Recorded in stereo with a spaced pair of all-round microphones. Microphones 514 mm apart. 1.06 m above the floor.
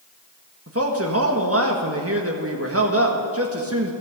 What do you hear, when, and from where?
0.7 s a man speaking: 25° right (ahead or behind), 1.6 m